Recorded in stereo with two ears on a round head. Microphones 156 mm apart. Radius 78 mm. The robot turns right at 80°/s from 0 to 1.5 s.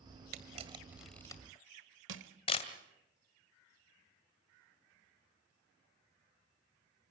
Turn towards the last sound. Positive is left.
turn(degrees=-80)